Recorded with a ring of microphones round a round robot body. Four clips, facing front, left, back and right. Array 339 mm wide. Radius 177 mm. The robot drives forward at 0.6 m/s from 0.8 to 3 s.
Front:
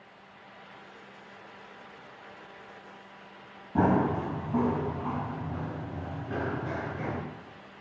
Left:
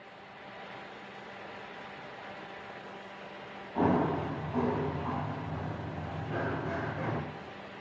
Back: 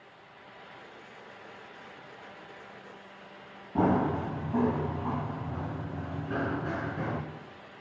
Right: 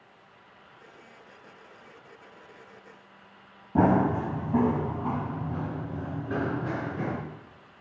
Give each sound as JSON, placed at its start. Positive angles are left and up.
{"t": 3.8, "sound": "running footsteps", "azimuth_deg": -85, "distance_m": 1.6}